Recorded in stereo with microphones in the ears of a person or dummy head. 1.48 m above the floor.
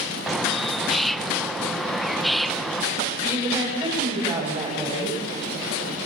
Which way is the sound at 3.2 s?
20° right (ahead or behind).